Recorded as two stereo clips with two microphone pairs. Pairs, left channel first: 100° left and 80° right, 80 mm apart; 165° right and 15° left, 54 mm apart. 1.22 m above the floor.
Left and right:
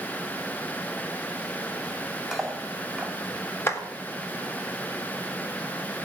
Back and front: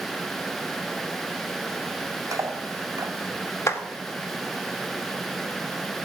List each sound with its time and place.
2.3 s cutlery clinking: 5° left, 4 m
3.7 s a clap: 155° left, 3.5 m